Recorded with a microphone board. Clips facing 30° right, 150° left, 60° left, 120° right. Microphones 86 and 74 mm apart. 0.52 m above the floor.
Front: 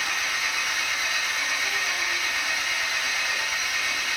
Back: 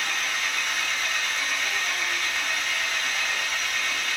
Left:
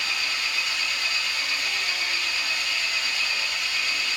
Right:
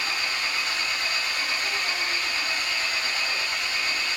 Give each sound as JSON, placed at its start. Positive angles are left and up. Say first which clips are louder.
{"t": 0.0, "sound": "an engine running", "louder": "even, right 1 dB", "azimuth_deg": -110, "distance_m": 0.9}